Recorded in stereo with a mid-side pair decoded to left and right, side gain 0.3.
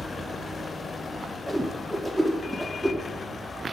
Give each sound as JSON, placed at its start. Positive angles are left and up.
{"t": 1.5, "sound": "a whoosh", "azimuth_deg": 0, "distance_m": 1.2}